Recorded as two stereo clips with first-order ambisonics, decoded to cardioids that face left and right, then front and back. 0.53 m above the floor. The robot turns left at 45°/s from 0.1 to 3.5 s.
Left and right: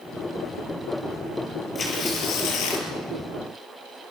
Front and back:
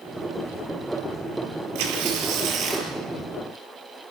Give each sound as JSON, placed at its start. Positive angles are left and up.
{"t": 1.8, "sound": "tearing paper", "azimuth_deg": 165, "distance_m": 5.0}